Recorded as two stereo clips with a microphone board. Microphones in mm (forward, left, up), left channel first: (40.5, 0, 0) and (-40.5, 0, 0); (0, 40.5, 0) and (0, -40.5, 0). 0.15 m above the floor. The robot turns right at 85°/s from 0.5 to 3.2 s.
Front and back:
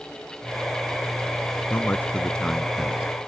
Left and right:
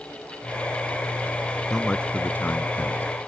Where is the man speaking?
10° left; by 3.1 s 125° left.